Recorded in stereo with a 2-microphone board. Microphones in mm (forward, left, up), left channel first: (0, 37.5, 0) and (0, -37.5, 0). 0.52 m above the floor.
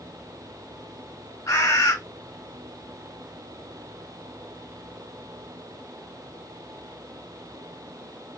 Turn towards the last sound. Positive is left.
turn(degrees=45)  # may be behind; listen again after turning